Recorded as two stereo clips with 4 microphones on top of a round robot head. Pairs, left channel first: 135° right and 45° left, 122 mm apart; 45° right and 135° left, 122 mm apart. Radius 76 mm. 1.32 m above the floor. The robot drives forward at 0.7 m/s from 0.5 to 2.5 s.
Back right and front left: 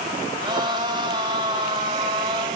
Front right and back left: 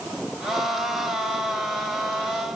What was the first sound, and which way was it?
Only background noise.